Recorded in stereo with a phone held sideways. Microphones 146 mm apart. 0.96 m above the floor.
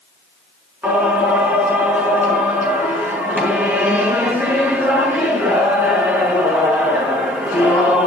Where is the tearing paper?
No tearing paper in this recording.